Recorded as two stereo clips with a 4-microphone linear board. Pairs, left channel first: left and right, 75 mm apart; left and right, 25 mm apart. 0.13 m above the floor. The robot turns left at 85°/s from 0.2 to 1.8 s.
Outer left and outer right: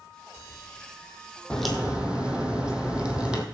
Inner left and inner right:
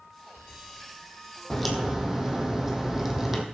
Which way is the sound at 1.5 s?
10° left (ahead or behind).